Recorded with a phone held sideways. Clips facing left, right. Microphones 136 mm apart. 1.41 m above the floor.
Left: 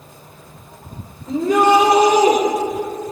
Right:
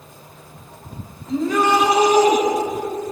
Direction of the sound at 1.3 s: 75° left (ahead or behind).